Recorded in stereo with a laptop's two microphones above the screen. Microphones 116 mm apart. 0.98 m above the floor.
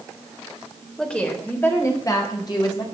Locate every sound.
1.0 s a woman speaking: 5° left (ahead or behind), 3 m; by 2.9 s 40° left (ahead or behind), 4.5 m